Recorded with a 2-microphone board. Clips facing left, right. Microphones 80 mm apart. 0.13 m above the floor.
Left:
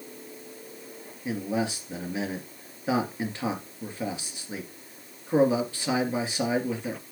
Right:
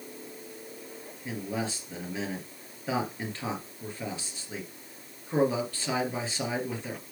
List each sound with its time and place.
1.2 s a man speaking: 20° left (ahead or behind), 2.5 m